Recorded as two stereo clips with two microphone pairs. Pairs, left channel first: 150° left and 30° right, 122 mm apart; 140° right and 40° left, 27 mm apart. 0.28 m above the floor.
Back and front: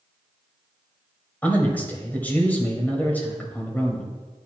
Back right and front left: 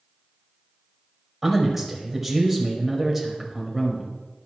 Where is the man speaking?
105° left, 1.4 m.